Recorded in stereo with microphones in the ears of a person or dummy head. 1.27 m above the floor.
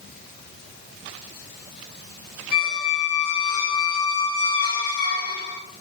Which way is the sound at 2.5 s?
50° left (ahead or behind).